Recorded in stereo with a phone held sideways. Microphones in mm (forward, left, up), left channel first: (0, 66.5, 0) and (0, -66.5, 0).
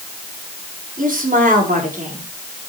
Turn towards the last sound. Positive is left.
turn(degrees=-65)  # may be behind; listen again after turning